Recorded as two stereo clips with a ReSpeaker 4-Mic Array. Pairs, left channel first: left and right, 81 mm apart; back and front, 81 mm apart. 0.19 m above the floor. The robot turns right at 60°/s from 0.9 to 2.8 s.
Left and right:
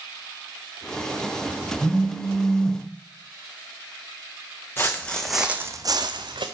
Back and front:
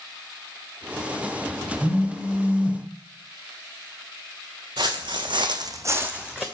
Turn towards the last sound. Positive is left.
turn(degrees=-85)